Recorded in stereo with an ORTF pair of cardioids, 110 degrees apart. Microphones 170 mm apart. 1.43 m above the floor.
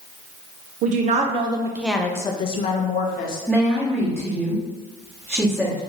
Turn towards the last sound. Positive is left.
turn(degrees=0)